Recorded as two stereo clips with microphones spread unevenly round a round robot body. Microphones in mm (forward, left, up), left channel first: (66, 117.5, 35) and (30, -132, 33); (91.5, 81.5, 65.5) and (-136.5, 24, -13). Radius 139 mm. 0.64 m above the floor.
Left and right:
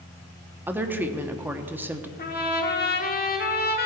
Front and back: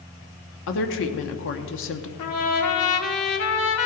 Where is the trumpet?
35° left, 1.6 m.